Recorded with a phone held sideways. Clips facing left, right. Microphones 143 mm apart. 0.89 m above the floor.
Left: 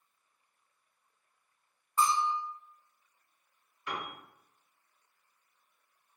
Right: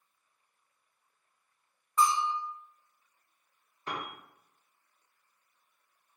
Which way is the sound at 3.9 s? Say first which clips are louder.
Right 1 dB; 35° right (ahead or behind).